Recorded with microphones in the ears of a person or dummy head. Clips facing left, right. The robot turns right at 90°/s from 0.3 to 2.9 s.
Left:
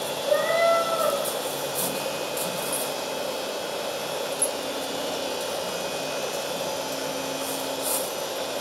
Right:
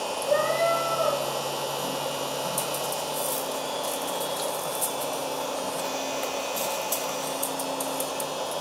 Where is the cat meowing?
65° left, 2 m; by 1.2 s 145° left, 2 m.